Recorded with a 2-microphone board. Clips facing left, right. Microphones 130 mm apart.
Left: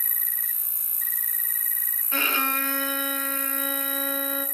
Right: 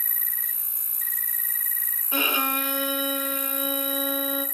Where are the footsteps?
I don't hear footsteps.